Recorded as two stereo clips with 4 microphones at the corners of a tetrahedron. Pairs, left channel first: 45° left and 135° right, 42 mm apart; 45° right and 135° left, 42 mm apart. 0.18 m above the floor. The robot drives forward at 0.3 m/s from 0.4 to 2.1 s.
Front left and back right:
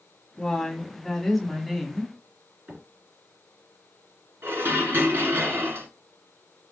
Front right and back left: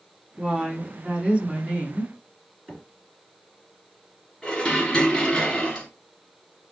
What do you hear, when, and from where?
0.4 s a woman speaking: 90° left, 1.1 m; by 2.1 s 140° left, 1.3 m
2.7 s a microwave: 175° left, 2.5 m
4.4 s dishes clattering: 125° right, 1.7 m